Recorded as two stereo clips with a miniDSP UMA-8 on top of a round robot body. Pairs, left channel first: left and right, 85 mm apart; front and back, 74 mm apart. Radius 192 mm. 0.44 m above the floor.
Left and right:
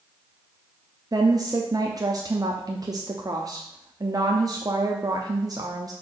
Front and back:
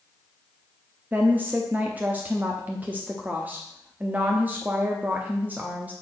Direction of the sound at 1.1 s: 120° right.